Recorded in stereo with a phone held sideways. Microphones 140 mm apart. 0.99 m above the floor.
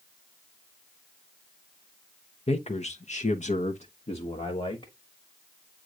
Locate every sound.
2.5 s a man speaking: 45° left (ahead or behind), 0.9 m; by 4.9 s 40° left (ahead or behind), 1.3 m